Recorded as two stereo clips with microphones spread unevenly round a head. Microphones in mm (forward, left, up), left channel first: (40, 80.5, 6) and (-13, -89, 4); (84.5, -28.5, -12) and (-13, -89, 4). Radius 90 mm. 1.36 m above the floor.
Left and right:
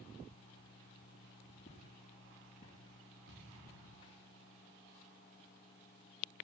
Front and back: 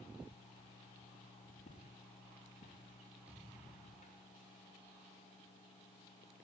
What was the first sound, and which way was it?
Footsteps, 15° left.